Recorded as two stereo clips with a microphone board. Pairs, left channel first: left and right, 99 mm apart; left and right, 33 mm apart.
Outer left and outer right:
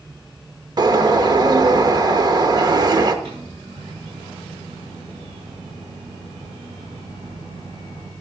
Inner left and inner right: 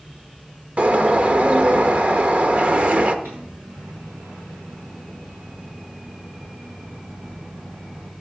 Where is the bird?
45° right (ahead or behind), 0.8 m.